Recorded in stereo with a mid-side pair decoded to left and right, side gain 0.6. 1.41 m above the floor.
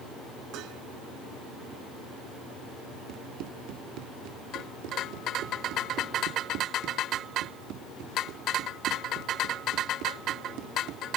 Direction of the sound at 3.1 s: 65° right.